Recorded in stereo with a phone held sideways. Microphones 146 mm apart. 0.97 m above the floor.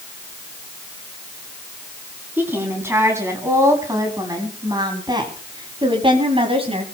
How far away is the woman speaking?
About 8.5 m.